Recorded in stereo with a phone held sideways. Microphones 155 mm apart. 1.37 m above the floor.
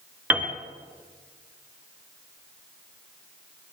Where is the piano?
10° right (ahead or behind), 2.5 m.